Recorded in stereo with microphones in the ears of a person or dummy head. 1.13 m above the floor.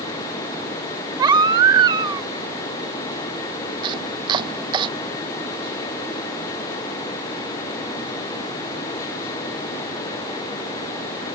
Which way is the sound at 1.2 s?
25° right (ahead or behind).